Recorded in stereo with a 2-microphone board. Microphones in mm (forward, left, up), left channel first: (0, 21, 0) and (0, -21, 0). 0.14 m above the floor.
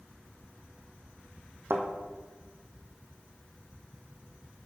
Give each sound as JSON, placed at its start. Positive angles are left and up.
{"t": 1.7, "sound": "a thud", "side_deg": -65, "distance_m": 1.6}